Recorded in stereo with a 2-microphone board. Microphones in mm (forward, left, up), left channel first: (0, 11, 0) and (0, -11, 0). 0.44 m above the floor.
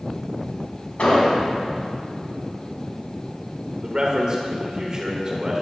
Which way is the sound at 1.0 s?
60° left (ahead or behind).